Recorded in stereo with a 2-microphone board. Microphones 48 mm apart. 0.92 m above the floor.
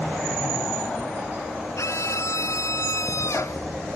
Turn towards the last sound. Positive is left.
turn(degrees=85)